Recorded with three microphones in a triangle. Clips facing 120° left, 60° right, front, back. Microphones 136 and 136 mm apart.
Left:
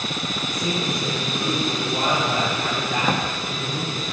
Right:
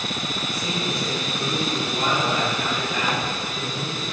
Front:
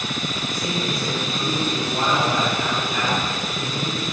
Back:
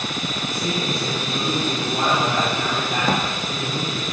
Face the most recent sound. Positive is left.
turn(degrees=170)